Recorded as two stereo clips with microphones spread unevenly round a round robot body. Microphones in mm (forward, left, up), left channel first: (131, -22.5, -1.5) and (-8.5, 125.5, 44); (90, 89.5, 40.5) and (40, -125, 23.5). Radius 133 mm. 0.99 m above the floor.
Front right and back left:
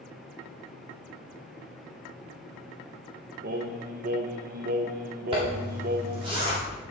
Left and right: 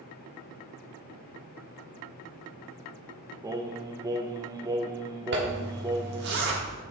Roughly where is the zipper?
Behind right.